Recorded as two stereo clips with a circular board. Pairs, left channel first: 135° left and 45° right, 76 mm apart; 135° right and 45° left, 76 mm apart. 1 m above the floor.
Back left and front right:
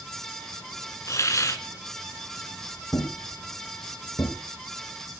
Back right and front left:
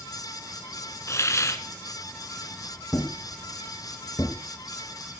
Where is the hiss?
Straight behind, 2 m.